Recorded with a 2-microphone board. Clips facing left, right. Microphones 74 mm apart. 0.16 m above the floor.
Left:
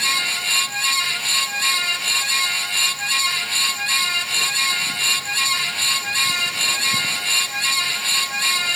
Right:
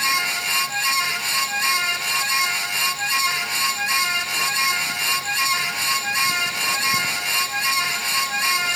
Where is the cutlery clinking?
I don't hear cutlery clinking.